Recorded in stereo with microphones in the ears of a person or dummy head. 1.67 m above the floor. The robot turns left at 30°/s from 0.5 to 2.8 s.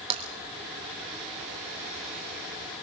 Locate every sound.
0.1 s tapping: 35° right (ahead or behind), 3 m